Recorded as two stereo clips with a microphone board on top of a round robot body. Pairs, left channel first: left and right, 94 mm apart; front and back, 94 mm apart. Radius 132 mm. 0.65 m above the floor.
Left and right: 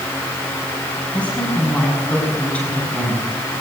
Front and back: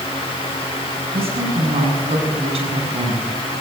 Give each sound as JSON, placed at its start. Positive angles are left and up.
{"t": 1.1, "sound": "a woman speaking", "azimuth_deg": 170, "distance_m": 8.0}